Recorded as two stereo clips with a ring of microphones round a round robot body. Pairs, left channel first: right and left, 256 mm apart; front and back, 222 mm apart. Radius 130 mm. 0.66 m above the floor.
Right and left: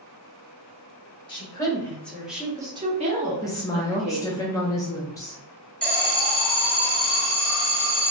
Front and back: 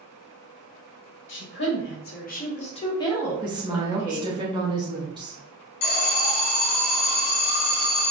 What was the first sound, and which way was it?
A woman speaking, 20° right.